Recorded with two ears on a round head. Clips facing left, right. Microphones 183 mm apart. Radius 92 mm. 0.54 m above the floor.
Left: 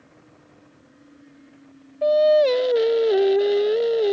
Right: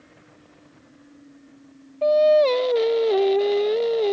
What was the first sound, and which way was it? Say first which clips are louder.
Singing: even; 10° left (ahead or behind).